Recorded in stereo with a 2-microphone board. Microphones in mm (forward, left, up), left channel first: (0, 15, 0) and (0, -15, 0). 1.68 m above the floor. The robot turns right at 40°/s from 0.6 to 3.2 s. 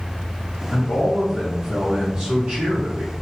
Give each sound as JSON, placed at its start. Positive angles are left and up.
{"t": 0.7, "sound": "a man speaking", "azimuth_deg": 155, "distance_m": 1.0}